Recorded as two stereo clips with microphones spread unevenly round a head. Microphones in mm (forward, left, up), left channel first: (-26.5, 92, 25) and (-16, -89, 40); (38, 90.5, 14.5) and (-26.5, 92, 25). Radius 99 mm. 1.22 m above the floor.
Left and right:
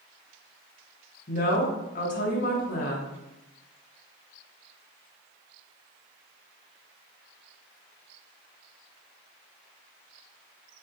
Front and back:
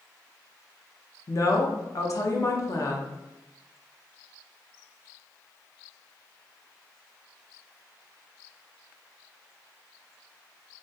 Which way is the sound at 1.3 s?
45° left.